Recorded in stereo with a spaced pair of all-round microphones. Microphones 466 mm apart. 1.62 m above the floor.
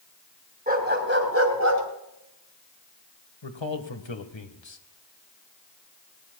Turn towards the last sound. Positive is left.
turn(degrees=80)